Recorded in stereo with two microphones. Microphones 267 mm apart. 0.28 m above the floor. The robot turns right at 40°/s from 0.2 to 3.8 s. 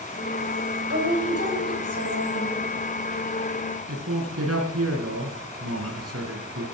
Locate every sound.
0.9 s a woman speaking: 125° right, 7 m; by 2.7 s 55° right, 7 m
3.9 s a man speaking: 70° right (ahead or behind), 2.5 m